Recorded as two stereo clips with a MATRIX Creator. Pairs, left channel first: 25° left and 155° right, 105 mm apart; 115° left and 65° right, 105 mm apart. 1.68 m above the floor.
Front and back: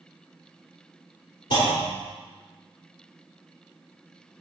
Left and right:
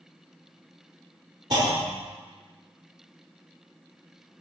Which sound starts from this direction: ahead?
A clunk, at 1.5 s.